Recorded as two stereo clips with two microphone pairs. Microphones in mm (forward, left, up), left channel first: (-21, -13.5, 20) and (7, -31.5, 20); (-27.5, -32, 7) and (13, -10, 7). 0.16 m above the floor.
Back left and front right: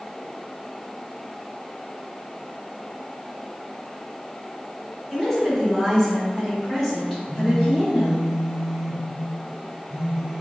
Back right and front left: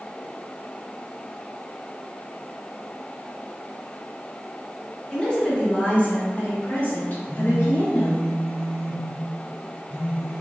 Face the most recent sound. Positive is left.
turn(degrees=50)